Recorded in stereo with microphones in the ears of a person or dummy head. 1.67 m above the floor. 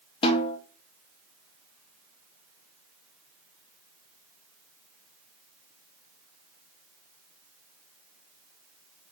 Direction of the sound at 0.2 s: 25° left (ahead or behind).